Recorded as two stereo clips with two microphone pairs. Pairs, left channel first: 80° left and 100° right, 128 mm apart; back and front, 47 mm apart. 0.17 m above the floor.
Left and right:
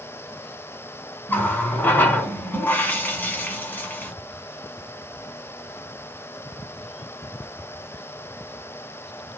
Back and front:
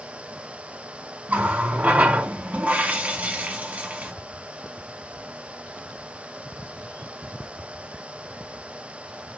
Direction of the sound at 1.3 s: 15° left.